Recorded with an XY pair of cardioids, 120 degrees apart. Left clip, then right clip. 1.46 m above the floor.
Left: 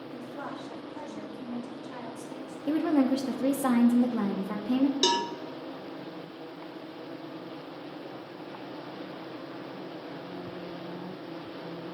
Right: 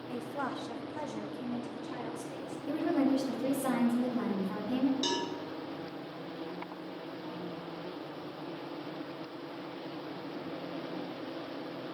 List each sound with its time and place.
0.1 s a woman speaking: 65° right, 1.0 m; by 2.6 s 10° right, 2 m
2.7 s a woman speaking: 50° left, 0.9 m
5.0 s a cowbell: 60° left, 0.6 m